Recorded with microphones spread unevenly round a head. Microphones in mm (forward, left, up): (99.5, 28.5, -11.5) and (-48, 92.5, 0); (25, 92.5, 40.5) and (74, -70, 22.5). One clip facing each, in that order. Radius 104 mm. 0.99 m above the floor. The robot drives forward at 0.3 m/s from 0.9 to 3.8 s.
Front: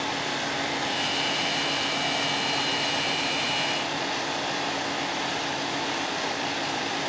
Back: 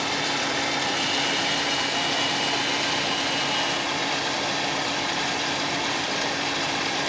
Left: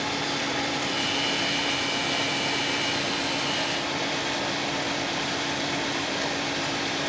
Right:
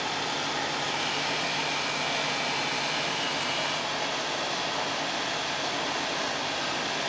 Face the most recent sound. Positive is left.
turn(degrees=-175)